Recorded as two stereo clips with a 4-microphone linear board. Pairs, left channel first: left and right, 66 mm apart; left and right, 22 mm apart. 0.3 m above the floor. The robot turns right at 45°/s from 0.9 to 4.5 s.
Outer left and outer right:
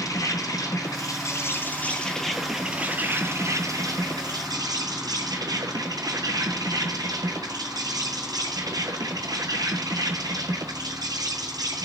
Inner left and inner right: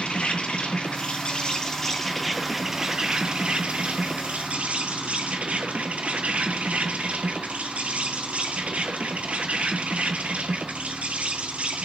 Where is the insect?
115° left, 1.0 m; by 11.8 s 85° right, 1.0 m.